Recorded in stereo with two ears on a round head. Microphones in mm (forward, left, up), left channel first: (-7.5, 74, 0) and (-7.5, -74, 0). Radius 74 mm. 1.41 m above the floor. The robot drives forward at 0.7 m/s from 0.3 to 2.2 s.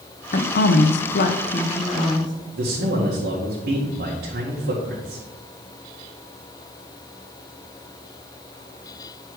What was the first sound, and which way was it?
A woman speaking, 50° left (ahead or behind).